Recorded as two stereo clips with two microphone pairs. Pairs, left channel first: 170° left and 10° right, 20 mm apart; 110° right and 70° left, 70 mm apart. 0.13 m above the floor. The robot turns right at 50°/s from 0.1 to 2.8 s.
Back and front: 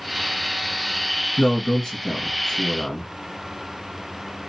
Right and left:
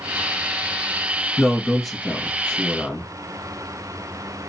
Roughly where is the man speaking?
Behind left.